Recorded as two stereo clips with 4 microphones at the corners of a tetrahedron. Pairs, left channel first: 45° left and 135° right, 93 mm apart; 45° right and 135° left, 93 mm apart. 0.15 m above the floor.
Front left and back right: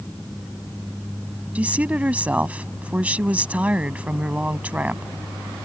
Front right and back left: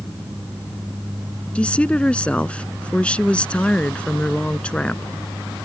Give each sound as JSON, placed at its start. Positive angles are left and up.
{"t": 1.6, "sound": "a woman speaking", "azimuth_deg": -95}